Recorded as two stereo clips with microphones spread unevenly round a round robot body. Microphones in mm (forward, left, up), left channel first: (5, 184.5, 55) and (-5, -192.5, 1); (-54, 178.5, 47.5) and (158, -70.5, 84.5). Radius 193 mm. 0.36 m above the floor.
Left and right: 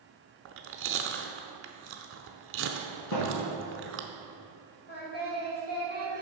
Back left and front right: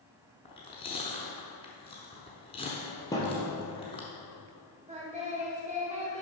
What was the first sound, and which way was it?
Chewing, 150° right.